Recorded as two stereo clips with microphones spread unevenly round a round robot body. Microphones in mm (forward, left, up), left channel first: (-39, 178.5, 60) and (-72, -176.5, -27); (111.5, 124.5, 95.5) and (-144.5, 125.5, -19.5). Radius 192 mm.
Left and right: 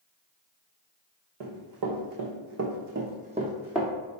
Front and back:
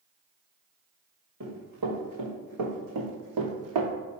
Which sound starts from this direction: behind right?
Running footsteps, at 1.4 s.